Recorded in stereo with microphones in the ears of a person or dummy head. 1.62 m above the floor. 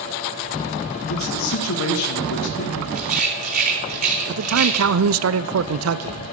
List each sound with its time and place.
1.1 s a man speaking: 75° left (ahead or behind), 2.5 m
3.0 s a rattle: 55° right (ahead or behind), 3.5 m
4.3 s a man speaking: 85° right, 0.8 m